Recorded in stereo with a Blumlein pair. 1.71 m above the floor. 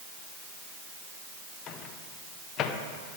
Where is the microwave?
30° left, 1.0 m.